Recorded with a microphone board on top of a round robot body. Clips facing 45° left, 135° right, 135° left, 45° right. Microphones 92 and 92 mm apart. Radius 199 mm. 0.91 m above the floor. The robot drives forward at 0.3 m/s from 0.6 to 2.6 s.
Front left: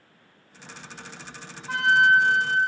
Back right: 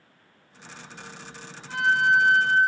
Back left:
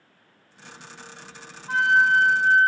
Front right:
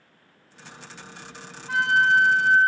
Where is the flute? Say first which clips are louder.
Front left 2 dB, back left 1 dB; 70° left, 0.5 m; by 2.6 s 100° left, 0.5 m.